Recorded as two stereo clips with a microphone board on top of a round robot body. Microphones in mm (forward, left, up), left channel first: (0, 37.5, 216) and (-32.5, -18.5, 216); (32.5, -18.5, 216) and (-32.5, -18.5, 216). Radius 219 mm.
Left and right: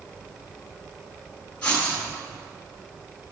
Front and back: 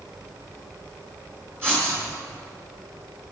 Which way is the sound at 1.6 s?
130° left.